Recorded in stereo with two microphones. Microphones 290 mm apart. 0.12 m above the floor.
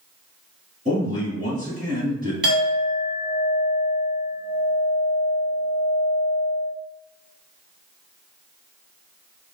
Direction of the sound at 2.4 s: 40° right (ahead or behind).